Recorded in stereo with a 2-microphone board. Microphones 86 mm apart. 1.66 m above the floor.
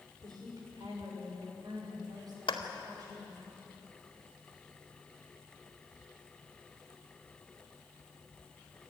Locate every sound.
0.2 s a woman speaking: 55° right (ahead or behind), 6 m; by 3.5 s 50° right (ahead or behind), 11 m
2.5 s a clap: 80° left, 2 m